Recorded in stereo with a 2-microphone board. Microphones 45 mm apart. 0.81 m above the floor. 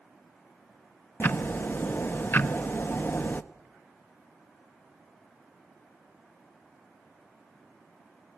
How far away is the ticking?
About 0.8 m.